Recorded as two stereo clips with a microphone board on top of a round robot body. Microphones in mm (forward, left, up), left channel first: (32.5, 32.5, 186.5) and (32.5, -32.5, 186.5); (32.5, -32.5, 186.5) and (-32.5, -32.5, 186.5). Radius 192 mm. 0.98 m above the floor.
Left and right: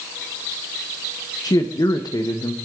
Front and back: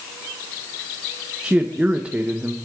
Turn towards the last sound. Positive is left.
turn(degrees=110)